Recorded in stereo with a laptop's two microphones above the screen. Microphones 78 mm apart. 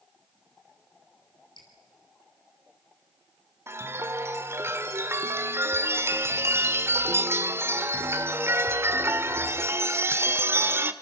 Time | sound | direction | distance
1.6 | dripping | 80° left | 6 m
3.7 | a chime | 35° right (ahead or behind) | 1.6 m